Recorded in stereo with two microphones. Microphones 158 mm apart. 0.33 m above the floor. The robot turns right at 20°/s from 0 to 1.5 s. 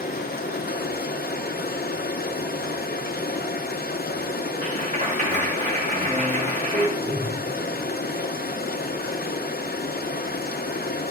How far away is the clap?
About 3 m.